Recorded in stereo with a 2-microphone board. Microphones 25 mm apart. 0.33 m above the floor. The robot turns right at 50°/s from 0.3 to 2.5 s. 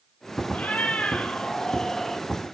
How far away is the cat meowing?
About 0.9 m.